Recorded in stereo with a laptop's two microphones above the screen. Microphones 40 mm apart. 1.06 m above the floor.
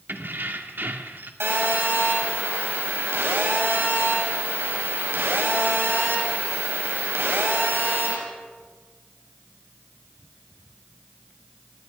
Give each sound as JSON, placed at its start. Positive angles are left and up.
{"t": 0.1, "sound": "keys jangling", "side_deg": -60, "distance_m": 2.0}
{"t": 1.4, "sound": "a phone buzzing", "side_deg": -85, "distance_m": 6.5}